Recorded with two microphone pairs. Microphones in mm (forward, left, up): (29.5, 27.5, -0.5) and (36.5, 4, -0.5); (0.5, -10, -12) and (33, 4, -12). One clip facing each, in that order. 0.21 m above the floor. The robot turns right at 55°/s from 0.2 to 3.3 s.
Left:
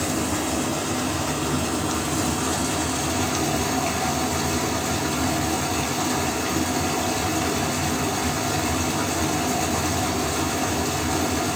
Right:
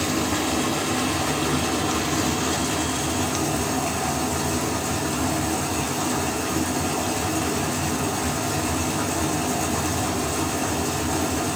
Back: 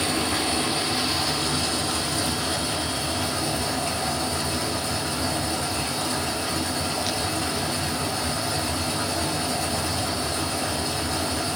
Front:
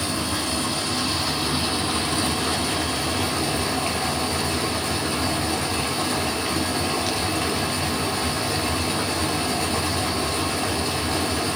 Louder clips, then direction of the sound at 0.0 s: Right 1 dB, back 1 dB; 125° right.